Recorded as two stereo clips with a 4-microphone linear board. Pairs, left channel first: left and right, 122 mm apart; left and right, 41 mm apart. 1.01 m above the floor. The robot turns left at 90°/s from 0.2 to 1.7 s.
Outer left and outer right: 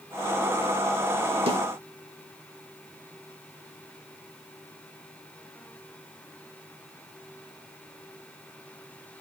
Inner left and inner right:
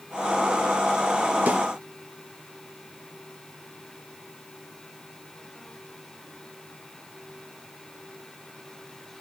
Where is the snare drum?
50° right (ahead or behind), 1.7 m; by 1.6 s 60° right (ahead or behind), 1.7 m.